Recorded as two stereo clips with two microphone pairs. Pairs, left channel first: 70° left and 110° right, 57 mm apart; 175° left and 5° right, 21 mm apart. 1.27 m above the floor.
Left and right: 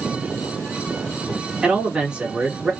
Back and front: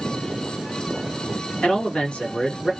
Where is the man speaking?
175° left, 1.7 m.